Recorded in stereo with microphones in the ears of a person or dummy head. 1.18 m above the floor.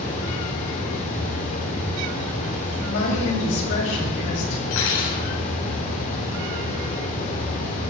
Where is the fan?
40° left (ahead or behind), 2 m.